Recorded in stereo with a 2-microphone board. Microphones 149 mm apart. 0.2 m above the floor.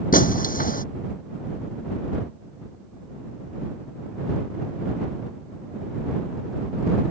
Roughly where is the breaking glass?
Left.